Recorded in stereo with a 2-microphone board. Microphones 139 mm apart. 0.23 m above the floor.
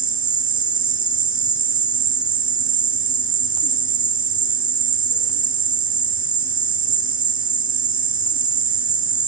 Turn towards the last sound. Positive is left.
turn(degrees=80)